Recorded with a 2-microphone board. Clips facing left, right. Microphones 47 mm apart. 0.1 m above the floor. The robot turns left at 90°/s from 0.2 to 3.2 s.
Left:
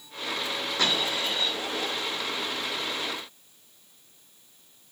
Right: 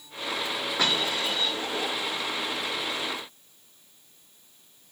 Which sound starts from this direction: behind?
A dropped coin, at 0.8 s.